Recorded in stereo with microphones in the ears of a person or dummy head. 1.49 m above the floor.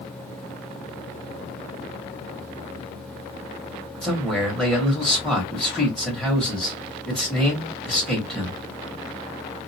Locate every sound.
4.0 s a man speaking: 5° left (ahead or behind), 1.5 m